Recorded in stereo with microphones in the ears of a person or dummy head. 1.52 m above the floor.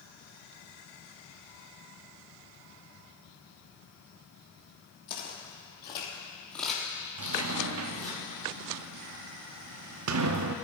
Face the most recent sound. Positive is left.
turn(degrees=-85)